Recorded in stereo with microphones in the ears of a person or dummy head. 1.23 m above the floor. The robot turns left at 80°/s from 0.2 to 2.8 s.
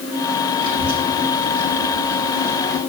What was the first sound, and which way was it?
A child speaking, 75° right (ahead or behind).